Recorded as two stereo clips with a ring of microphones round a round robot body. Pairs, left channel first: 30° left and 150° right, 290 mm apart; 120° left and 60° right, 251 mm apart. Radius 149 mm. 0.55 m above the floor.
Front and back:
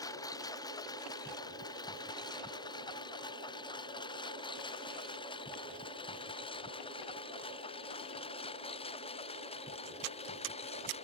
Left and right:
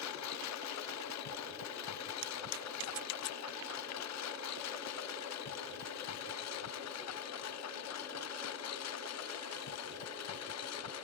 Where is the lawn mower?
110° left; by 11.1 s 100° left.